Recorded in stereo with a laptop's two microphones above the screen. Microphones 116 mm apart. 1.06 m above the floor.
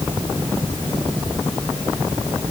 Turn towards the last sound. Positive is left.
No sound to turn to.